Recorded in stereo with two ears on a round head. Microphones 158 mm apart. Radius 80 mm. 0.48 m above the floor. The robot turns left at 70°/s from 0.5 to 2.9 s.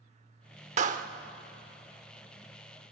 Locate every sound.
0.8 s a clap: 40° right (ahead or behind), 0.9 m; by 1.1 s 50° right (ahead or behind), 0.9 m